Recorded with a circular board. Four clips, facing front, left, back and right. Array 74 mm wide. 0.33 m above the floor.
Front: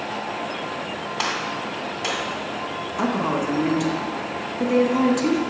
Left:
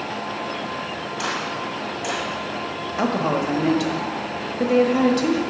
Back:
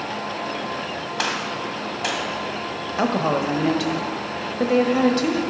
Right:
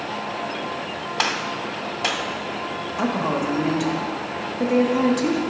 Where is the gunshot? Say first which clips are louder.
Right 2 dB, even; 115° right, 1.6 m.